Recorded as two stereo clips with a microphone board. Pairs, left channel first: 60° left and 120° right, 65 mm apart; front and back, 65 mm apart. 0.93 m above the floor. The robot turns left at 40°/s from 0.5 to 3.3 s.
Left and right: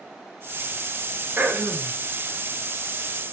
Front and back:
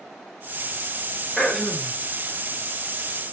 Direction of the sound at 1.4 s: 85° right.